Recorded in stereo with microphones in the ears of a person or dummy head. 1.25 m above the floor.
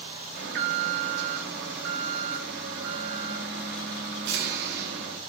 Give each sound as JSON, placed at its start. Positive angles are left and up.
{"t": 0.3, "sound": "an alarm", "side_deg": -65, "distance_m": 2.5}